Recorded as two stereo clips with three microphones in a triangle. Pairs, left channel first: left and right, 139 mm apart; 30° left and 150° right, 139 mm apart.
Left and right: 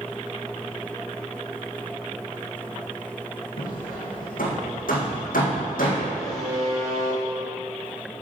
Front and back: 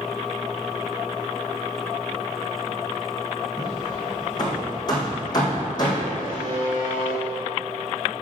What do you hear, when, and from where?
3.6 s hammering: 90° left, 3.5 m
6.2 s a buzzer: 160° left, 4.5 m